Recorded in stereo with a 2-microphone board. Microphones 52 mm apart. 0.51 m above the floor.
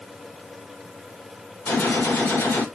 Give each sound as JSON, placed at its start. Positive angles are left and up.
{"t": 1.7, "sound": "a gunshot", "side_deg": 50, "distance_m": 2.5}